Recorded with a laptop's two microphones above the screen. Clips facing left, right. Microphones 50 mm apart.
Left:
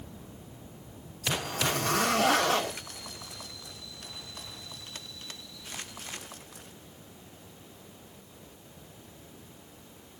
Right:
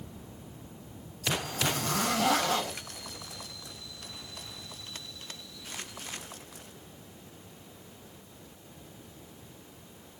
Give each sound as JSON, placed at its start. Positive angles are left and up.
{"t": 1.4, "sound": "a zipper", "side_deg": 65, "distance_m": 2.5}